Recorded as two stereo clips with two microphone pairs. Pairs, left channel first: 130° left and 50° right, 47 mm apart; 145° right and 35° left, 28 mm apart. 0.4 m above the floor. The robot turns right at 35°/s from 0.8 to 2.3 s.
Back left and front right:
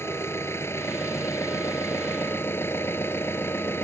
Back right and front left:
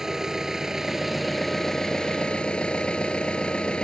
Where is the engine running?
110° left; by 3.9 s 160° left.